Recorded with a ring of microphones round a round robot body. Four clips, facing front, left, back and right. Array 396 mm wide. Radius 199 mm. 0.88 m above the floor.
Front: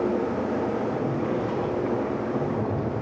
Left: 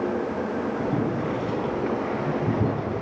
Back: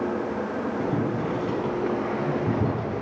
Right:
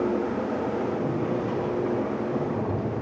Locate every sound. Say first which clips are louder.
0.8 s boiling: left 1 dB, even; 135° left, 4.5 m